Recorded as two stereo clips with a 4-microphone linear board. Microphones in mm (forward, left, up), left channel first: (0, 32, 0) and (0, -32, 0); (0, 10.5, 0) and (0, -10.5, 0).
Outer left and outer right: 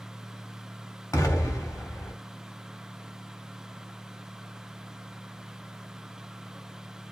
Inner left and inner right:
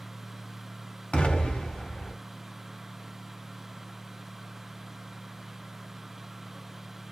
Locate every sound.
1.1 s an explosion: 60° left (ahead or behind), 1.0 m